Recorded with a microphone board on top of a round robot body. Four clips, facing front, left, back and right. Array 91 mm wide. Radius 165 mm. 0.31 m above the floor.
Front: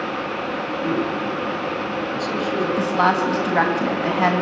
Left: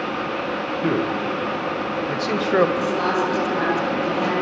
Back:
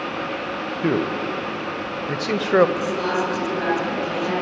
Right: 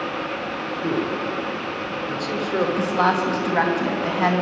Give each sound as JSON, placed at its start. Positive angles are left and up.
{"t": 0.8, "sound": "a man speaking", "azimuth_deg": 155, "distance_m": 2.0}
{"t": 2.8, "sound": "a woman speaking", "azimuth_deg": -30, "distance_m": 4.5}